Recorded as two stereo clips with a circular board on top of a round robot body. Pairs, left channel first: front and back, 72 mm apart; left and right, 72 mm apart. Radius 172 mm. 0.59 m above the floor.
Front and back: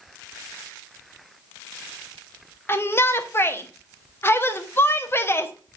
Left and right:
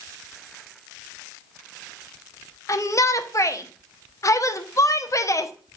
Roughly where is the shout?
Ahead left.